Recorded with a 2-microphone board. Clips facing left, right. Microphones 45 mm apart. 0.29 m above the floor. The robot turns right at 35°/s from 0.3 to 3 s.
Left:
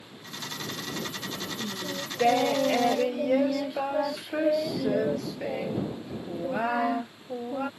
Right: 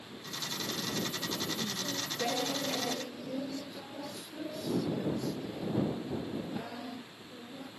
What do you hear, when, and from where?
1.6 s singing: 25° left; by 7.7 s 75° left